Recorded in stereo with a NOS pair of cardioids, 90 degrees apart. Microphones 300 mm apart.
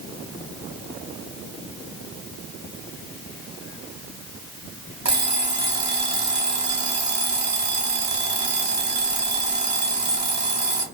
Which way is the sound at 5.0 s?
30° right.